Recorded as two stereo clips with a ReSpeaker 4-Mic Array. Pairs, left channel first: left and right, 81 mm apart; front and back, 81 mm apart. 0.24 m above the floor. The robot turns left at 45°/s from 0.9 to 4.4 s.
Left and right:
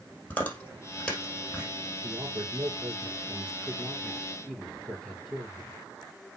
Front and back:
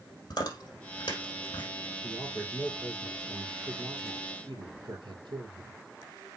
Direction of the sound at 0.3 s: 20° left.